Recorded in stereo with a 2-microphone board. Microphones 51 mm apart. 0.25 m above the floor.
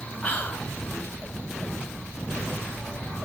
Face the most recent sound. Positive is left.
turn(degrees=30)  # may be behind; listen again after turning